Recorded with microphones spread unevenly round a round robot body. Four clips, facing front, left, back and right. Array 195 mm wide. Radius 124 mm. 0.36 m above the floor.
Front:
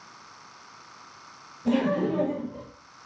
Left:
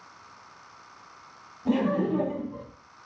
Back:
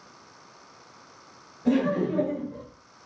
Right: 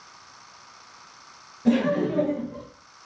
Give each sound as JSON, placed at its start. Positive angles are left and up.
{"t": 1.6, "sound": "laughter", "azimuth_deg": -115, "distance_m": 7.5}